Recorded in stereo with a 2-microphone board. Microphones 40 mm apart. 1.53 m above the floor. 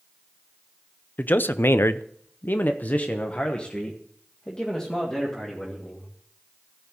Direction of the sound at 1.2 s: 45° left (ahead or behind).